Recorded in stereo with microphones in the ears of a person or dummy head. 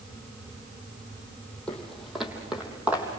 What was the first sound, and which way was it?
Footsteps, 5° left (ahead or behind).